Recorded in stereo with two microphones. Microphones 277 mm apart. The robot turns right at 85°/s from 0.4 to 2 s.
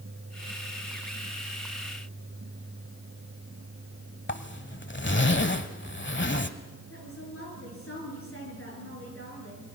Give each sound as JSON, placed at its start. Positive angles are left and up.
{"t": 4.3, "sound": "a zipper", "side_deg": 45, "distance_m": 1.0}
{"t": 6.9, "sound": "a woman speaking", "side_deg": 50, "distance_m": 9.5}